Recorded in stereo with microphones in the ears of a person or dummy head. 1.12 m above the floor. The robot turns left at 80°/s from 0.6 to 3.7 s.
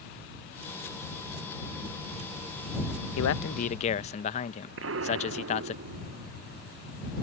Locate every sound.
3.2 s a man speaking: 80° left; by 5.8 s 35° left
4.8 s an explosion: 55° right (ahead or behind)